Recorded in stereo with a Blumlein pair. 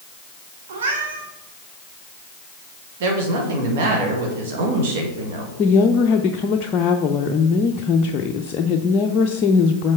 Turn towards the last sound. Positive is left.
turn(degrees=30)